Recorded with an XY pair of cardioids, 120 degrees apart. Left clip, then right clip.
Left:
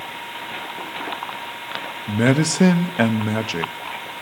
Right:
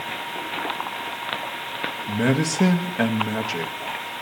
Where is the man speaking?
35° left, 0.7 m.